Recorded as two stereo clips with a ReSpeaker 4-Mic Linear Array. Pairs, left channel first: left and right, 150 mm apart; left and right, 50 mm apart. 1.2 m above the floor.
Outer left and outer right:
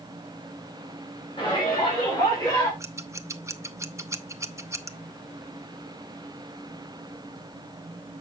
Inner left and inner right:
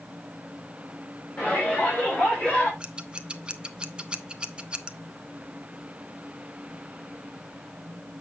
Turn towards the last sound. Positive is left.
turn(degrees=-20)  # may be behind; listen again after turning